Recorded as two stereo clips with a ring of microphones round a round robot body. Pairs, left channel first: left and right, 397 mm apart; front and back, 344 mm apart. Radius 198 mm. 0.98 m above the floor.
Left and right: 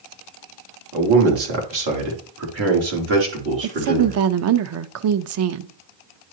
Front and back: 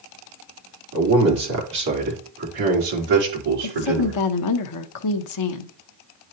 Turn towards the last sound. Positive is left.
turn(degrees=-40)